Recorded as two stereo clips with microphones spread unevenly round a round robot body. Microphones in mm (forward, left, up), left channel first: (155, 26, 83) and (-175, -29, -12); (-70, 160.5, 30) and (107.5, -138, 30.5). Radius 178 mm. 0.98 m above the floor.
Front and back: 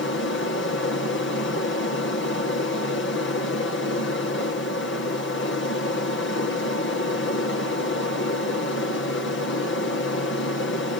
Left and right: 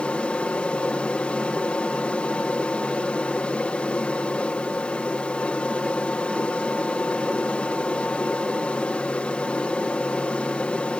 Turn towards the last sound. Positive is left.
turn(degrees=40)